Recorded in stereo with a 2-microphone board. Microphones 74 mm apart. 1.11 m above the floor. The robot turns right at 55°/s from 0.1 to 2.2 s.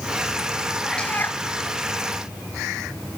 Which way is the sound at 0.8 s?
5° left.